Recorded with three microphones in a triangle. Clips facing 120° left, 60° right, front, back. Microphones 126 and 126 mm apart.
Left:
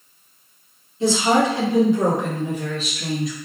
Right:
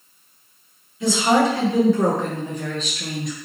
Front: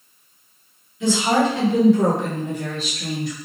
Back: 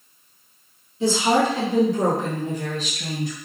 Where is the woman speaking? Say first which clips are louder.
Even, front 1 dB; 155° left, 1.4 m; by 3.4 s 150° right, 1.9 m.